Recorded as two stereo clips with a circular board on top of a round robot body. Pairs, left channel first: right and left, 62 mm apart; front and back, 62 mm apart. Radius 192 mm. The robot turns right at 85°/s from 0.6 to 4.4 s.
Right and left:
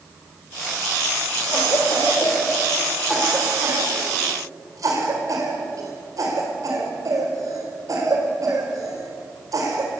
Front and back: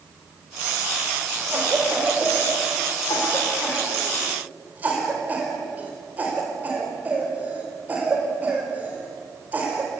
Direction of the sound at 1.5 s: 130° right.